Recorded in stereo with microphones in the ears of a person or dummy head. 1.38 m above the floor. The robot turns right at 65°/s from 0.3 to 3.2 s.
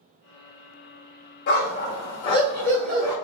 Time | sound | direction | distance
1.5 | a dog barking | 85° left | 1.3 m